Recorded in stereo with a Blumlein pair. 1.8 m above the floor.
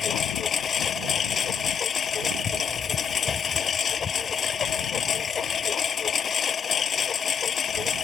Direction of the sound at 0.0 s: 20° left.